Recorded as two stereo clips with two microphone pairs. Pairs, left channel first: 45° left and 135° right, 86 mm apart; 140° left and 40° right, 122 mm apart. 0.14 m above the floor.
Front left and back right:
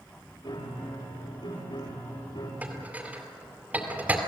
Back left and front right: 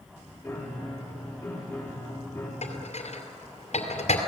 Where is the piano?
65° left, 9 m.